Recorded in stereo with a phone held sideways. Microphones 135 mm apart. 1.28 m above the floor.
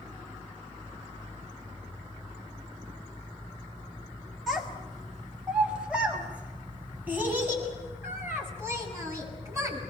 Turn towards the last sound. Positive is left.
turn(degrees=-25)  # may be behind; listen again after turning